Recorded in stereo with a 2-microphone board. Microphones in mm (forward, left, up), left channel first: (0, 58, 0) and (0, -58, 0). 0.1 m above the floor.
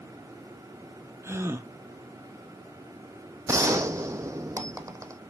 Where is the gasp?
25° right (ahead or behind), 1.0 m.